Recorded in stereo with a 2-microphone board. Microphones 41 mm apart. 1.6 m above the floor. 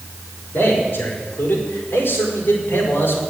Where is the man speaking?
50° left (ahead or behind), 5.5 m; by 3.2 s 65° left (ahead or behind), 4.5 m.